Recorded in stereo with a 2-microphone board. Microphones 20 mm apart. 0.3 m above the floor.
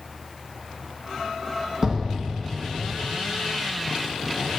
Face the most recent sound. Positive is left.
turn(degrees=-45)  # may be behind; listen again after turning